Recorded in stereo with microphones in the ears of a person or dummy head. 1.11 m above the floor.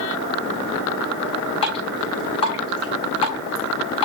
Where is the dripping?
35° left (ahead or behind), 5 m.